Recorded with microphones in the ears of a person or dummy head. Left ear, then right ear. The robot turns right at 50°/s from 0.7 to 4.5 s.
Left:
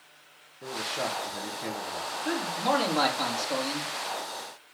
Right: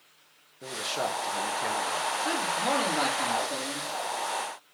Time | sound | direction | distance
0.6 | a man speaking | 80° right | 1.8 m
2.2 | a man speaking | 20° right | 3.5 m